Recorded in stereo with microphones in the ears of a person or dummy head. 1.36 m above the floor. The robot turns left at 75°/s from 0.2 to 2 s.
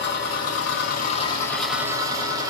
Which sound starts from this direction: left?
An engine running, at 0.0 s.